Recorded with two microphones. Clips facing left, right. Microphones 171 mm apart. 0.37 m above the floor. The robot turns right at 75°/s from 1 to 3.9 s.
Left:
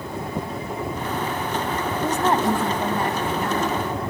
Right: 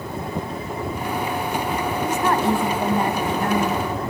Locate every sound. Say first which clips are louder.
2.0 s a woman speaking: left 1 dB; 130° left, 2 m; by 3.9 s 90° right, 2 m